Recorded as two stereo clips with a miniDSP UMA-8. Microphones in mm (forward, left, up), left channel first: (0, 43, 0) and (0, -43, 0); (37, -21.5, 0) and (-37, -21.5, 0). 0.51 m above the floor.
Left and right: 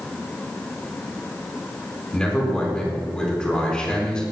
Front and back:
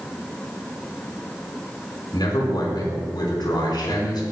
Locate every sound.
2.1 s a man speaking: 10° left, 4.5 m